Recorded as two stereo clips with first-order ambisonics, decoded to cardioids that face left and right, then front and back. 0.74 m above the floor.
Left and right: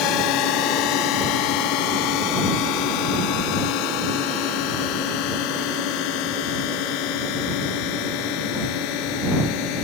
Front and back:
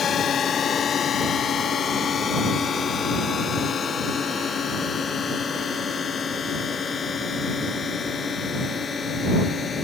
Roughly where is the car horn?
I don't hear a car horn.